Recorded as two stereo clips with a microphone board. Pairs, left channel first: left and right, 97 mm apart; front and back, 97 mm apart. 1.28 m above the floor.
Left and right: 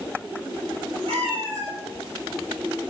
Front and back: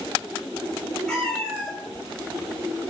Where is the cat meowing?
85° right, 4 m.